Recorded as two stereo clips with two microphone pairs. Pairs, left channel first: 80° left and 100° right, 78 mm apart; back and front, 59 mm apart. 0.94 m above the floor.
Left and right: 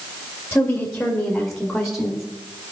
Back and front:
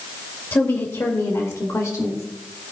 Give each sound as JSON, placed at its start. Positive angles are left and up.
{"t": 0.5, "sound": "a woman speaking", "azimuth_deg": 145, "distance_m": 1.5}